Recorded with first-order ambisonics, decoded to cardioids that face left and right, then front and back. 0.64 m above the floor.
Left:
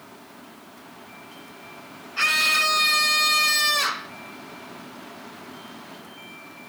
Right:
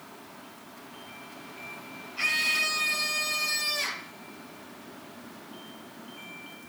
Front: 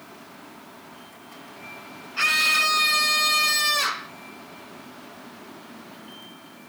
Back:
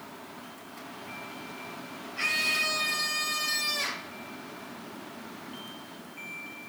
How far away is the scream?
About 3 m.